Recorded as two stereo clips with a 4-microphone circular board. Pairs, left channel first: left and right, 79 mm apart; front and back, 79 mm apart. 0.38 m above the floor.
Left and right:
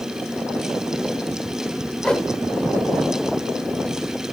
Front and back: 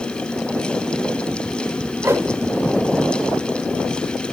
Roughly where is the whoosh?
Behind.